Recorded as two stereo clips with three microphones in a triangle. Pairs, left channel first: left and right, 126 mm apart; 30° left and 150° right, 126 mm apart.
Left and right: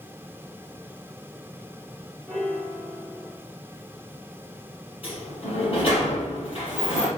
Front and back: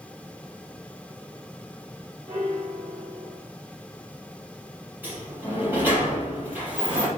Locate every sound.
2.3 s a piano: 175° left, 2.5 m
5.0 s a sliding door: 135° left, 4 m